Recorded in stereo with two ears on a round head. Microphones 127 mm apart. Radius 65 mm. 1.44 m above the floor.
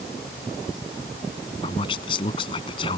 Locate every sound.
1.6 s a man speaking: 35° left (ahead or behind)